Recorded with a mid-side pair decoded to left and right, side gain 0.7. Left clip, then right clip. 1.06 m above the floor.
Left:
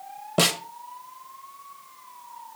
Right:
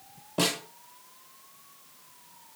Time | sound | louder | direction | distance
0.4 | a snare drum | left 6 dB | 45° left | 1.2 m